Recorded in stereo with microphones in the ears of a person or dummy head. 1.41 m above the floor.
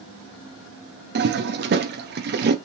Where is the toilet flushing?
45° right (ahead or behind), 0.7 m.